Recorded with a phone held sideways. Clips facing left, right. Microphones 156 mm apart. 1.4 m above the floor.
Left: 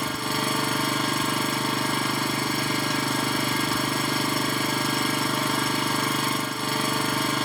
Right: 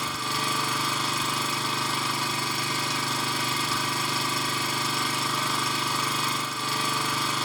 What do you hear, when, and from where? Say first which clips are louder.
0.0 s an engine running: left 4 dB; 55° left (ahead or behind), 0.9 m